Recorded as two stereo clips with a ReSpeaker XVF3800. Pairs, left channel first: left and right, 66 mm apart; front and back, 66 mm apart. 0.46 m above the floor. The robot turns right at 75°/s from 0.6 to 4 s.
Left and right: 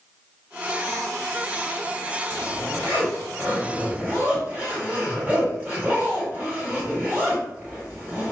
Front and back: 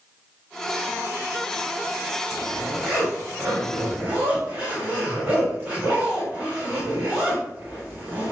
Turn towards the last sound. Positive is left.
turn(degrees=-135)